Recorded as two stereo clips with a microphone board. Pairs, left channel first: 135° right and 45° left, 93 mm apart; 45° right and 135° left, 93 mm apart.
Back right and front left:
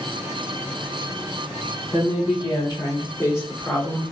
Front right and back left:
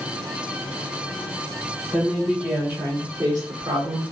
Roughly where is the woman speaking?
Behind right.